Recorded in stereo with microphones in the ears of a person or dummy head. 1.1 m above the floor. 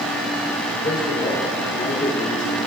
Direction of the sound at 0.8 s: 30° left (ahead or behind).